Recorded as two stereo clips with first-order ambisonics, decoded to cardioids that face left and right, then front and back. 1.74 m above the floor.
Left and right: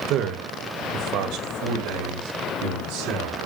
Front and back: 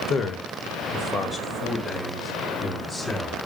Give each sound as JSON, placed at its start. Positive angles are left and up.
{"t": 0.1, "sound": "a man speaking", "azimuth_deg": -55, "distance_m": 1.5}